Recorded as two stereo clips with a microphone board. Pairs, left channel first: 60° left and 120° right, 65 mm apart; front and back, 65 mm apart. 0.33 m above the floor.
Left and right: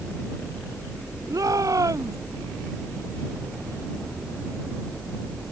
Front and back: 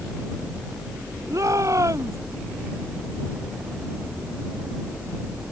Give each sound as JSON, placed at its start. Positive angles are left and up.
{"t": 1.3, "sound": "a shout", "azimuth_deg": -145}